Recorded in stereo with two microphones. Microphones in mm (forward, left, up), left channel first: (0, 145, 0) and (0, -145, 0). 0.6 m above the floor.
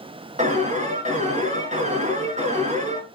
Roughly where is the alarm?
Right.